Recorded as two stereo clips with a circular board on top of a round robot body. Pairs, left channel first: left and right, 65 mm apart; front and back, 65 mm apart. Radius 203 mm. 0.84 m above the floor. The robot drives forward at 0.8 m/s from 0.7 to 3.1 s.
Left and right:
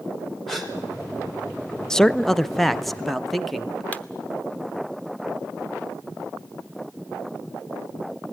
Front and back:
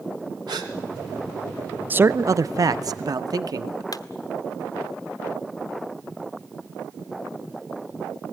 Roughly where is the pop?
Ahead.